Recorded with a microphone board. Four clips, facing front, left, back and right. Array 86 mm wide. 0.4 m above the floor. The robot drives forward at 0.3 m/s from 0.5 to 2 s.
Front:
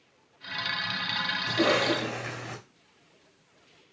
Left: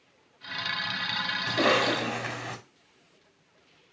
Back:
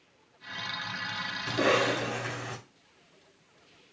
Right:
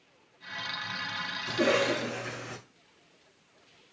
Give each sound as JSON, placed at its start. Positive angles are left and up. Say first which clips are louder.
{"t": 1.5, "sound": "a cough", "louder": "left 1 dB, front 1 dB", "azimuth_deg": 90, "distance_m": 3.5}